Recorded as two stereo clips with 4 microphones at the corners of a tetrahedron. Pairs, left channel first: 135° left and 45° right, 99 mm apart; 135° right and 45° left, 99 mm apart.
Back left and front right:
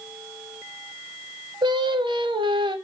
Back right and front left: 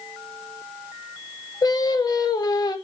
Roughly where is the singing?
Right.